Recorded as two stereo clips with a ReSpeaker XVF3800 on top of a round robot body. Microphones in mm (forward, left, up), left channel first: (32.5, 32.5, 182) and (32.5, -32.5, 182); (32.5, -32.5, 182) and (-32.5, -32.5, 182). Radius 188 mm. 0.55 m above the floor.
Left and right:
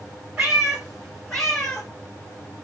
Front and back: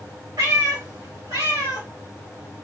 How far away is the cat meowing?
About 1.4 m.